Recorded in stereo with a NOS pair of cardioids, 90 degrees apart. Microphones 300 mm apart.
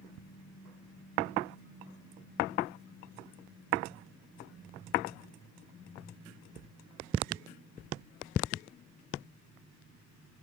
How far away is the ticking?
About 0.7 m.